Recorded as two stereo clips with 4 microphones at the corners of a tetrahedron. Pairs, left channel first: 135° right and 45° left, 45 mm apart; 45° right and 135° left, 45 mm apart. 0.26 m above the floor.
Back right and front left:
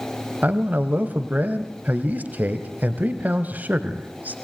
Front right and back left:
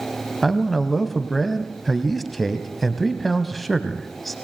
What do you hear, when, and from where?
0.4 s a man speaking: 45° left, 1.3 m